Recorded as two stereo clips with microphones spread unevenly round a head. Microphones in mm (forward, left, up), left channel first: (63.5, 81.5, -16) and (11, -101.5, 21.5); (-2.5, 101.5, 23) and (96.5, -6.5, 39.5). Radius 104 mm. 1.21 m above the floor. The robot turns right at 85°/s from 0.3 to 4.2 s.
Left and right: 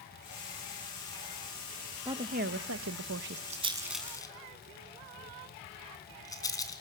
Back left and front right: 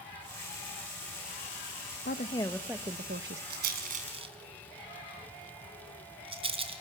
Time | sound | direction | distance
2.0 | a woman speaking | 175° left | 0.8 m
3.5 | a rattle | 60° right | 3 m